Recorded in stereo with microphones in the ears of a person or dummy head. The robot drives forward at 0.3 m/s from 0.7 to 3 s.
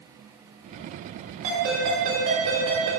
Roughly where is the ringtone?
Right.